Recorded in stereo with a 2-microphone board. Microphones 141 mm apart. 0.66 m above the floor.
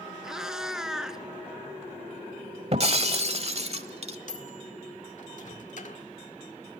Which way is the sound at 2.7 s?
45° right (ahead or behind).